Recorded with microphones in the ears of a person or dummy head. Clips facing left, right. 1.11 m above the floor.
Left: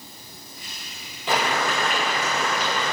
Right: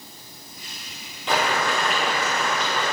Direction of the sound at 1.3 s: Centre (ahead or behind).